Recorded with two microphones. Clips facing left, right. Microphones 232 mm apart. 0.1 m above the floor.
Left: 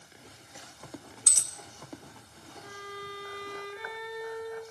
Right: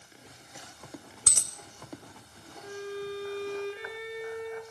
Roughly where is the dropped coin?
Right.